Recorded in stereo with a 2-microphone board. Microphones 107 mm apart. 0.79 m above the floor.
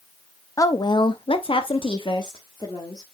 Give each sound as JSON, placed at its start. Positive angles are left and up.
{"t": 0.6, "sound": "a woman speaking", "side_deg": 30, "distance_m": 0.8}